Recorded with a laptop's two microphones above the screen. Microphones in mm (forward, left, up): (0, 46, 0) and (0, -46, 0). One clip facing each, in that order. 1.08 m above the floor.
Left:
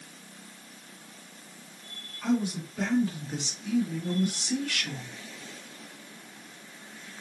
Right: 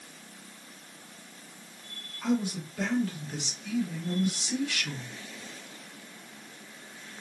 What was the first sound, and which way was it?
A man speaking, 5° right (ahead or behind).